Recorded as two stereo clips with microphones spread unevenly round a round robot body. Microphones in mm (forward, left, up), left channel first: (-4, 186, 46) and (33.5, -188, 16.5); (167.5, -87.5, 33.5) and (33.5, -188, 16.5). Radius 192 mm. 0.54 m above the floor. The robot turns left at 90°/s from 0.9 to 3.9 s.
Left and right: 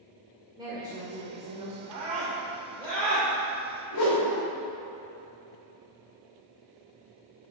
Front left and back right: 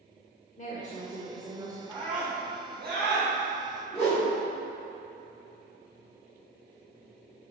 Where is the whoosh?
120° left, 2.5 m.